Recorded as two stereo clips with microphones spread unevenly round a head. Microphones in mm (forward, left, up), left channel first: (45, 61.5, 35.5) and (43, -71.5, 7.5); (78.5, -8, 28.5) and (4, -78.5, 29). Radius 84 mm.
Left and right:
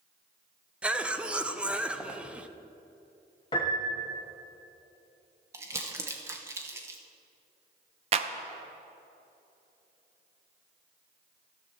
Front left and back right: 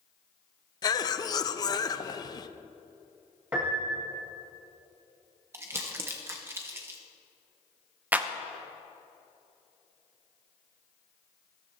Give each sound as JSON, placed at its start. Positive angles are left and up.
{"t": 0.8, "sound": "a cough", "azimuth_deg": 0, "distance_m": 0.8}
{"t": 3.5, "sound": "a piano", "azimuth_deg": 145, "distance_m": 1.2}
{"t": 5.5, "sound": "crumpling", "azimuth_deg": -170, "distance_m": 0.7}
{"t": 8.1, "sound": "a clap", "azimuth_deg": -80, "distance_m": 0.5}